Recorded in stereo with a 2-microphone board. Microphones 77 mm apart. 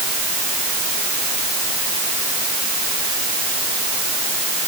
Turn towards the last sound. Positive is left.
No sound to turn to.